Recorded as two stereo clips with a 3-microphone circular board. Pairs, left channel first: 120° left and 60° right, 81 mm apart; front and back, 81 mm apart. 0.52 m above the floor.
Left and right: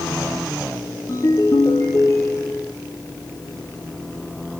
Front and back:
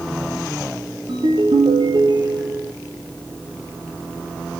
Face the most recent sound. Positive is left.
turn(degrees=170)